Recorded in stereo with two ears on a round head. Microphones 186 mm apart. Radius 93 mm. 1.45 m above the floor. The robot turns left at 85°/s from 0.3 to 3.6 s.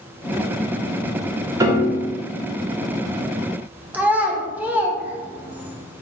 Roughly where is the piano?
Behind.